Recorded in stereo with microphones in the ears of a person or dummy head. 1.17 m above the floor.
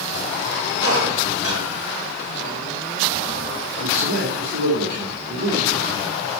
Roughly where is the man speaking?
Right.